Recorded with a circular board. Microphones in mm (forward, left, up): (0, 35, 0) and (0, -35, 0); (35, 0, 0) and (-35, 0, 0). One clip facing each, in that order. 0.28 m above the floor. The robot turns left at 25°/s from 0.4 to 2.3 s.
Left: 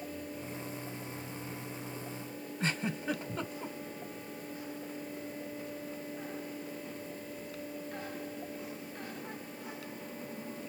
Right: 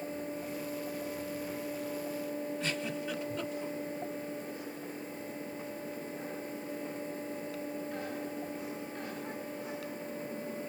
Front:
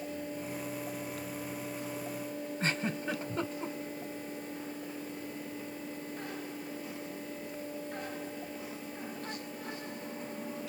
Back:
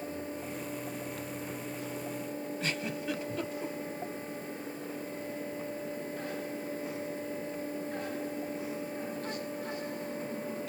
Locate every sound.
2.6 s a giggle: 45° left, 0.6 m